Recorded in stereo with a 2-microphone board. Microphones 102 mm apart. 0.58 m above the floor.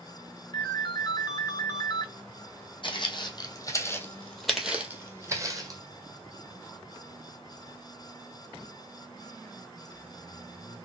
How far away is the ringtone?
About 0.8 m.